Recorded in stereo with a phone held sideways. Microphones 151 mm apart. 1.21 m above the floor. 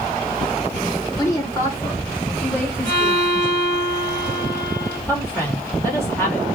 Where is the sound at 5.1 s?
15° left (ahead or behind), 2.5 m.